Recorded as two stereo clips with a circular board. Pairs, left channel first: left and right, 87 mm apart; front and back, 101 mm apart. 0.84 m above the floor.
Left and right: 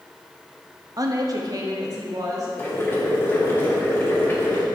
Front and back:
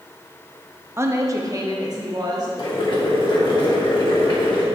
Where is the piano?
No piano in this recording.